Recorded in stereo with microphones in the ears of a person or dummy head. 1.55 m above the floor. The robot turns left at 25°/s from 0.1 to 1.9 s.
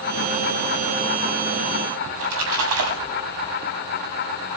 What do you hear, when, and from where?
2.1 s a splash: 75° right (ahead or behind), 6.5 m